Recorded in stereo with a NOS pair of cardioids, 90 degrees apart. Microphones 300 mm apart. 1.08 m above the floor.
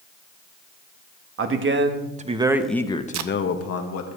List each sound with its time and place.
1.4 s a man speaking: 45° right, 1.6 m; by 4.1 s 65° left, 1.5 m
3.1 s tape being pulled: 65° right, 0.7 m